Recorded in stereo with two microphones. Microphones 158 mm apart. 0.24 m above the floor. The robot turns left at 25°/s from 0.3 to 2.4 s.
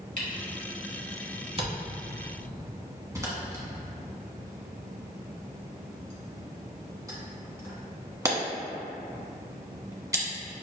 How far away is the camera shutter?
About 1.2 m.